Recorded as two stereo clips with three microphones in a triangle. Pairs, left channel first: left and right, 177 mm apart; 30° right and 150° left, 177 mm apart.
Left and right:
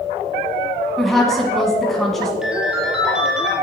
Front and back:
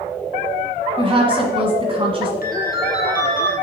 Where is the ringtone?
5° right, 2 m.